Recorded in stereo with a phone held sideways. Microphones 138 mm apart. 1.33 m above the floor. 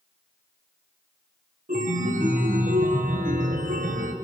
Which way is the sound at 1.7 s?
70° right (ahead or behind).